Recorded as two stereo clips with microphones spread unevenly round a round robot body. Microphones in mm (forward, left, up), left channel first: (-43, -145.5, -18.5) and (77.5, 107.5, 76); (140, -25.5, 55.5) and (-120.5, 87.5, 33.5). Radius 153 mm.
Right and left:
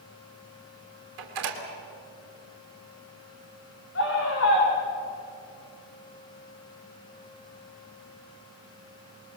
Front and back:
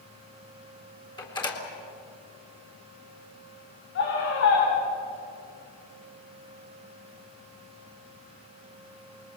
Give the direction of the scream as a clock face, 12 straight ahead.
3 o'clock.